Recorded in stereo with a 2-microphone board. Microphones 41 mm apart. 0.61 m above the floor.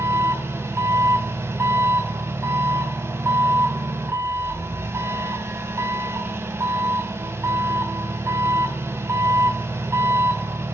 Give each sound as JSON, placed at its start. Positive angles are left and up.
{"t": 0.0, "sound": "an engine running", "side_deg": -85, "distance_m": 2.5}